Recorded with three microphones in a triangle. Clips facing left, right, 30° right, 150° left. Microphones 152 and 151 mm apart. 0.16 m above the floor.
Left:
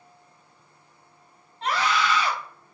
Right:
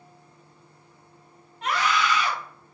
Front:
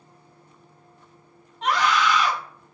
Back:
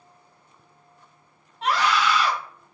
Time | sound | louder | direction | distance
1.6 | a scream | even, even | 65° left | 1.2 m